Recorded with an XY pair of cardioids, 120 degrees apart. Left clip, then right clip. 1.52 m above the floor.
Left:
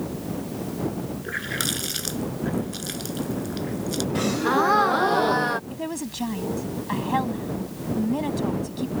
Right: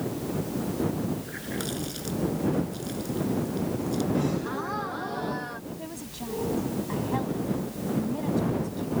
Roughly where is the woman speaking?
Ahead left.